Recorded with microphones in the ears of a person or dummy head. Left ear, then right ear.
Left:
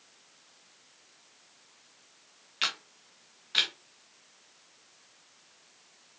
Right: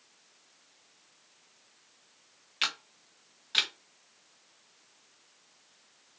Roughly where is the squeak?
No squeak in this recording.